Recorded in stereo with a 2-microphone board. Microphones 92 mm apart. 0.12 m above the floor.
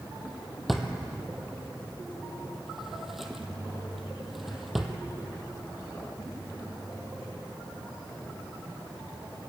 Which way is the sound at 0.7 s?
5° right (ahead or behind).